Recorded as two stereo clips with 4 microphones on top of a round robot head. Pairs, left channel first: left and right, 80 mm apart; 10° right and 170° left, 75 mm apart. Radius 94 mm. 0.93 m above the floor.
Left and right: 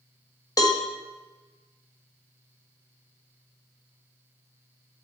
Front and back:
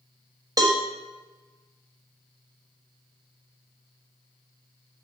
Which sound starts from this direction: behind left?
A cowbell, at 0.6 s.